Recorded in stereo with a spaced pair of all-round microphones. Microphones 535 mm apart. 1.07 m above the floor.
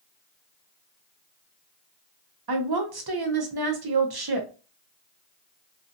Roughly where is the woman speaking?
Right.